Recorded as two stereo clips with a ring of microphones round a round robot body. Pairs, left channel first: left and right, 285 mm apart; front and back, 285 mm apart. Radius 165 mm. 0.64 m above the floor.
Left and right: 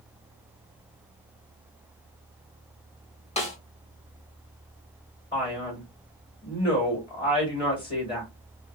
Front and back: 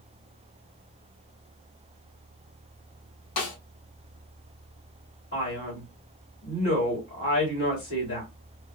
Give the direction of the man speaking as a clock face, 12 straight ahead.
11 o'clock.